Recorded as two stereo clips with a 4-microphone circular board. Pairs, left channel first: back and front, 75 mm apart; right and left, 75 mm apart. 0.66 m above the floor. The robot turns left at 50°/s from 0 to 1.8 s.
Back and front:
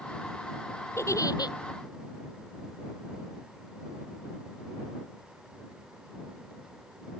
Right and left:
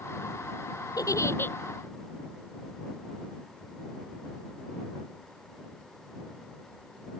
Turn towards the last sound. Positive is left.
turn(degrees=-165)